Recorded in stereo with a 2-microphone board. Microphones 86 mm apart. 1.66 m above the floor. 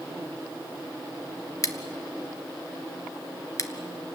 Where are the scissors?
40° left (ahead or behind), 1.2 m.